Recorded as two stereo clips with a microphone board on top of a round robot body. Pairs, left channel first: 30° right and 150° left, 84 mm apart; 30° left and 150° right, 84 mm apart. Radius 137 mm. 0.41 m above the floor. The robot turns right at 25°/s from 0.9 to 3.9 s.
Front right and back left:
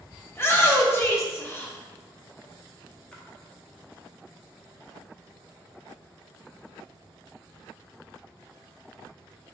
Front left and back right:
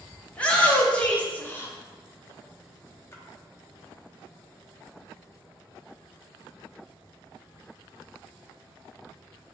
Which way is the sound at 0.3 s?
30° right.